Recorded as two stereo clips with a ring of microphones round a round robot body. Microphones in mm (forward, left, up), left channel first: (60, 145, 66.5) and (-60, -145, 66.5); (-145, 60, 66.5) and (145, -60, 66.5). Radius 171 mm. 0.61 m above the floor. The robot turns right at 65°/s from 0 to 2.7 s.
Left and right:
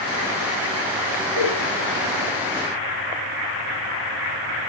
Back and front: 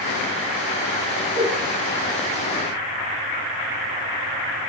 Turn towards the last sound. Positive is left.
turn(degrees=-15)